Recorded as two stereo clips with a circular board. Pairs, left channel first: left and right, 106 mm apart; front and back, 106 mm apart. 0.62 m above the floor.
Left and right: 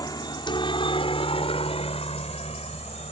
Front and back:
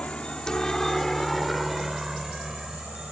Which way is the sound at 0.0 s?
75° left.